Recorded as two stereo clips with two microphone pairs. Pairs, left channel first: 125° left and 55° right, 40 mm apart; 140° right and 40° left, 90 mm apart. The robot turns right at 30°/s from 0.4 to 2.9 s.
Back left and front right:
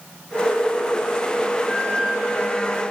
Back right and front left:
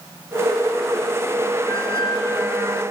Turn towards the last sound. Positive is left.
turn(degrees=-40)